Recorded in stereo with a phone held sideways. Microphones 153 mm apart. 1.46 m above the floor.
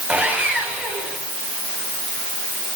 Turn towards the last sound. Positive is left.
turn(degrees=-10)  # may be behind; listen again after turning